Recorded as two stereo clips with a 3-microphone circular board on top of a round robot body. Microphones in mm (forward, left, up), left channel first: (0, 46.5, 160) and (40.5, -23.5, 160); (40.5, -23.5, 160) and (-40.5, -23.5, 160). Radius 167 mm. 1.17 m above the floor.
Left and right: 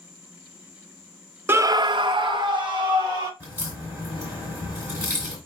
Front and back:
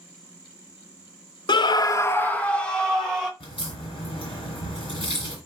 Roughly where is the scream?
Ahead.